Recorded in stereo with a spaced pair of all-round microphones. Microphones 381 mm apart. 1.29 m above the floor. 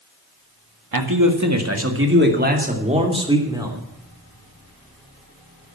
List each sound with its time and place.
0.9 s a man speaking: 60° right (ahead or behind), 1.8 m; by 3.8 s 10° right (ahead or behind), 3 m